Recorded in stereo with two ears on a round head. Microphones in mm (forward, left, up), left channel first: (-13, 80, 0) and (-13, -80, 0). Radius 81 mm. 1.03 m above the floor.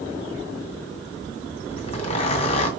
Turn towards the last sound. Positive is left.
turn(degrees=35)  # may be behind; listen again after turning